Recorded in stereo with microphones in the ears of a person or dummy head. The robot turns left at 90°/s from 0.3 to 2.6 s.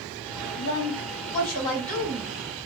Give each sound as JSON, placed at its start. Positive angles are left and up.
{"t": 0.6, "sound": "a woman speaking", "azimuth_deg": 120, "distance_m": 1.9}